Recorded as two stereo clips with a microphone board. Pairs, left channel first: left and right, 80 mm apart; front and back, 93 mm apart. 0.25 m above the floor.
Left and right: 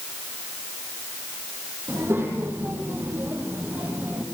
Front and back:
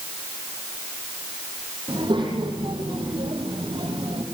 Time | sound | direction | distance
1.9 | a child speaking | 150° right | 7.5 m